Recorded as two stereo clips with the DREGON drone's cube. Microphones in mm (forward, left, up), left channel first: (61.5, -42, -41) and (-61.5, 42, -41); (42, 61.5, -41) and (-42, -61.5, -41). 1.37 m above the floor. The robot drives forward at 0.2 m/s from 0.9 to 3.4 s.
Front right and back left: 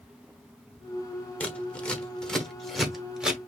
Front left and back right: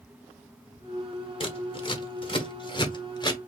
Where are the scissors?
40° left, 1.2 m; by 3.4 s 65° left, 1.1 m.